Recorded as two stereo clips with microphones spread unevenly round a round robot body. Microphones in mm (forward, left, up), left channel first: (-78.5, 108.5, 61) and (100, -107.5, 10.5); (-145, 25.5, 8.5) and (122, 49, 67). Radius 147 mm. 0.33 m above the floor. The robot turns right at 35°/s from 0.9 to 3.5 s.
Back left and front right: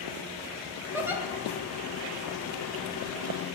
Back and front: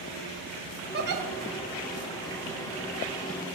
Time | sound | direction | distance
0.9 | a giggle | 10° right | 1.0 m